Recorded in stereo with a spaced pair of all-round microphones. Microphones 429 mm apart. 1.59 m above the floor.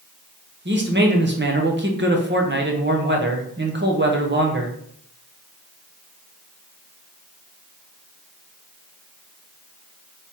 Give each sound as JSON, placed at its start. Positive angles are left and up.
{"t": 0.7, "sound": "a man speaking", "side_deg": -25, "distance_m": 1.0}